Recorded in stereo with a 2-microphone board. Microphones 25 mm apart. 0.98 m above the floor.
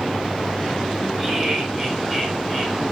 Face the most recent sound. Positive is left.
turn(degrees=10)  # may be behind; listen again after turning